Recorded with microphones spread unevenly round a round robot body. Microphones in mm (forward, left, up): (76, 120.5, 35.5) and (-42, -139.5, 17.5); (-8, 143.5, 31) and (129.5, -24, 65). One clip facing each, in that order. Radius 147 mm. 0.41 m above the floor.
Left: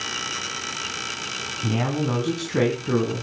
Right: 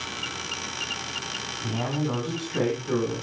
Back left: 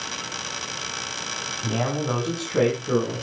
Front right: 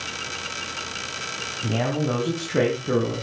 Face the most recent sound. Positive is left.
turn(degrees=20)